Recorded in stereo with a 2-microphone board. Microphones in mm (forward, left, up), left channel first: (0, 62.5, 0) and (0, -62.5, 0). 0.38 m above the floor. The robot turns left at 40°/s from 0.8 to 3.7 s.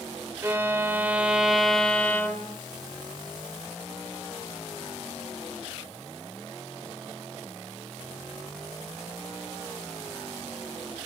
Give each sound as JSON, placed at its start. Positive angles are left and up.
{"t": 0.4, "sound": "a violin", "azimuth_deg": -150, "distance_m": 0.7}